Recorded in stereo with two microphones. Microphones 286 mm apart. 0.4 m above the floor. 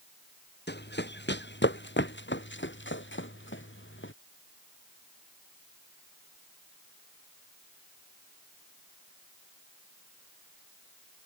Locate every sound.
0.7 s running footsteps: 35° left (ahead or behind); by 4.1 s 45° left (ahead or behind)